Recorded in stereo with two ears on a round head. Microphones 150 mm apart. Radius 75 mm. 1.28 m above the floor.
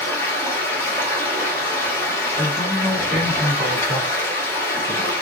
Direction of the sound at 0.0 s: 15° left (ahead or behind).